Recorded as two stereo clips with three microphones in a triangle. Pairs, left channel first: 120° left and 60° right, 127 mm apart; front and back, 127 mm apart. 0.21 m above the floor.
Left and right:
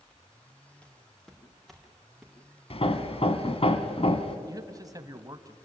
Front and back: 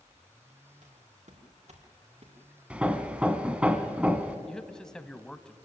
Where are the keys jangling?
No keys jangling in this recording.